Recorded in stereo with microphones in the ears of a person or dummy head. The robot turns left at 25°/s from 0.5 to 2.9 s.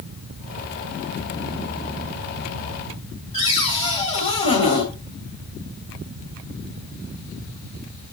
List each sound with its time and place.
3.3 s a cupboard door: 45° left (ahead or behind), 3 m